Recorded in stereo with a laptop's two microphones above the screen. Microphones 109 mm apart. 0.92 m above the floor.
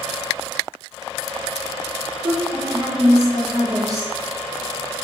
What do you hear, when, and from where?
2.2 s a woman speaking: 35° right (ahead or behind), 0.8 m